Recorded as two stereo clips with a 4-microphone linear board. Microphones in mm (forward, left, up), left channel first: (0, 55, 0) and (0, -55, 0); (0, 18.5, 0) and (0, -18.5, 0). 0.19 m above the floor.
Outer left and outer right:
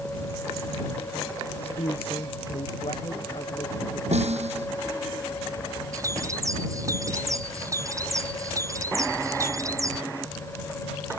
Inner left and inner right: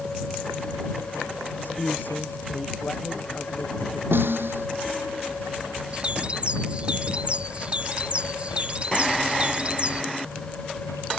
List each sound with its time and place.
1.6 s a man speaking: 60° left (ahead or behind); by 4.0 s 50° left (ahead or behind)
4.1 s a snare drum: 75° right (ahead or behind)
5.9 s a bird: 30° right (ahead or behind)